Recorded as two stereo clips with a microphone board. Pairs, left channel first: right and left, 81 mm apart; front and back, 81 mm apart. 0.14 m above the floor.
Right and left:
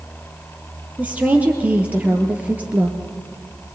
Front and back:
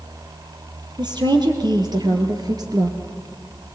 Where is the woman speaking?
160° left, 3.5 m.